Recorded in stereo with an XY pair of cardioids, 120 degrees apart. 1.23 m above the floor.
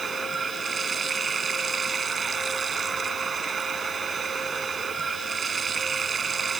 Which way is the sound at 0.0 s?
35° right.